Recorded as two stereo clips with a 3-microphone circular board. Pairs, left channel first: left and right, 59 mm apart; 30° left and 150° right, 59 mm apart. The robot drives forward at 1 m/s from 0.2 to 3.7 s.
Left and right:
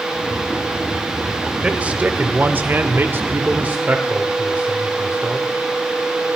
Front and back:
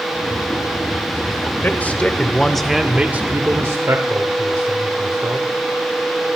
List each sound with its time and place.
1.6 s a man speaking: 25° right, 1.7 m; by 5.5 s 140° right, 1.2 m